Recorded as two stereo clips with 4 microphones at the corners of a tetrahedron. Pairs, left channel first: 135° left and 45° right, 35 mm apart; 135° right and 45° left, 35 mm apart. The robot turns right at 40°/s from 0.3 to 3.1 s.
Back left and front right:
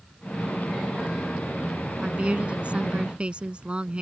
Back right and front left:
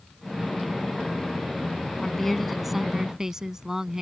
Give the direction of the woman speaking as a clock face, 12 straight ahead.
2 o'clock.